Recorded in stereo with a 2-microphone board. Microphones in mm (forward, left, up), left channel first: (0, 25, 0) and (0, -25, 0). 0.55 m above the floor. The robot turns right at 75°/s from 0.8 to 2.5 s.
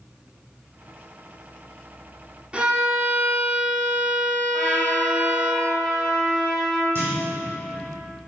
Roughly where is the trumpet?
Centre.